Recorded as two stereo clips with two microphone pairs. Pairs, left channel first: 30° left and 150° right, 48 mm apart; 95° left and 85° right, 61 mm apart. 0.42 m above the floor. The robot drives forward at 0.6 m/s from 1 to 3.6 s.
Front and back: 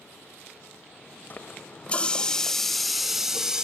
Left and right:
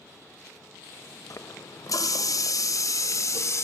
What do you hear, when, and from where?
1.3 s a running tap: 75° left, 1.4 m; by 3.6 s 130° left, 1.7 m